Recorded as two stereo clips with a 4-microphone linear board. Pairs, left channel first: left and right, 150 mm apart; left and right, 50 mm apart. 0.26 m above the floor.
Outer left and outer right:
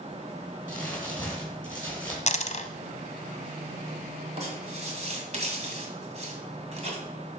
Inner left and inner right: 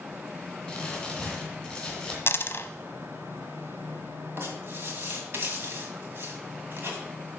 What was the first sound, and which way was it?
Crumpling, 10° left (ahead or behind).